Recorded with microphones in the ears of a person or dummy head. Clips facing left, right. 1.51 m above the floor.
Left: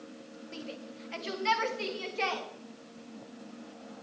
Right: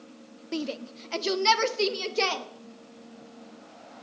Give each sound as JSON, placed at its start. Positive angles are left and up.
{"t": 0.5, "sound": "a shout", "side_deg": -70, "distance_m": 0.9}